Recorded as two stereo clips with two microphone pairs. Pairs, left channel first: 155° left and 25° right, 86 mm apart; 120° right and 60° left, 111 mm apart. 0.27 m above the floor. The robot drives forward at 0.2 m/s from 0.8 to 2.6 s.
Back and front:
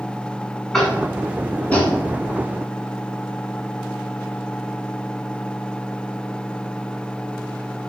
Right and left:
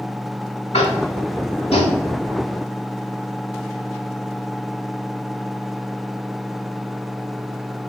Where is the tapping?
120° right, 0.6 m; by 2.0 s 135° right, 0.7 m.